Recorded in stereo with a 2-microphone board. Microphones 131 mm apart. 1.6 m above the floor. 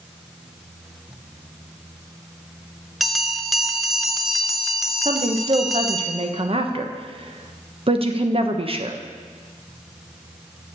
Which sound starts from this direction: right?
A woman speaking, at 5.0 s.